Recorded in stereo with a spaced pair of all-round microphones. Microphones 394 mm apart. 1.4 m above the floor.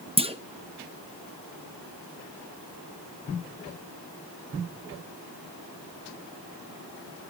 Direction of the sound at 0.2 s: 15° right (ahead or behind).